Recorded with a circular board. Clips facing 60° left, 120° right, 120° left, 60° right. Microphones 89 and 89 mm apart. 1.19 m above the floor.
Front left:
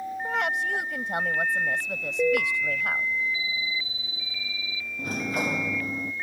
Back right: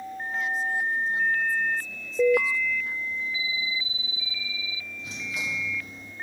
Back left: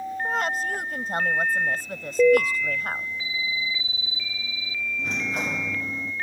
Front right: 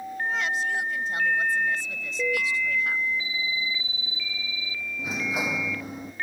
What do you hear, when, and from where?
0.2 s a woman speaking: 75° left
2.2 s an alarm: 160° left
5.0 s a sliding door: 20° left